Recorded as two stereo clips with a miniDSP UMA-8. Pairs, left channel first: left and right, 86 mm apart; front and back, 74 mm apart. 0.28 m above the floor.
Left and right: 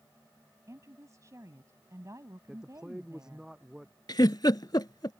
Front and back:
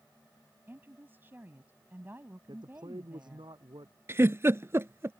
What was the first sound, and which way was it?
A woman speaking, 125° right.